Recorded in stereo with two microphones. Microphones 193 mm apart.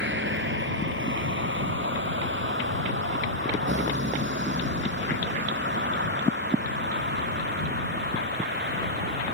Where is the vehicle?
75° right (ahead or behind); by 9.3 s 65° right (ahead or behind).